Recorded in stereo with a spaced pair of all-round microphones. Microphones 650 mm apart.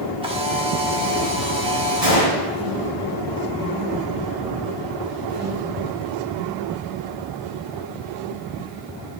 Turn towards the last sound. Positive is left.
turn(degrees=25)  # may be behind; listen again after turning